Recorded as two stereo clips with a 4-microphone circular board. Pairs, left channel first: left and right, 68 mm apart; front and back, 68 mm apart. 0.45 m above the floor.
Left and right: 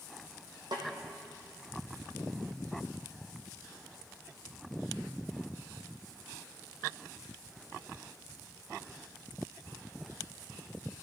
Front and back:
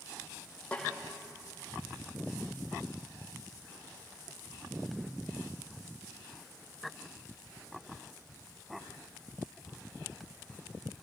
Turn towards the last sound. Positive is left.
turn(degrees=-75)